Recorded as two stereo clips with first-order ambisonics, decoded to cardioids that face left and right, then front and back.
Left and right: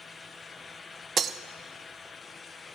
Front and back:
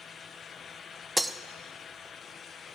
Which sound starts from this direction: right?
Breaking glass, at 1.2 s.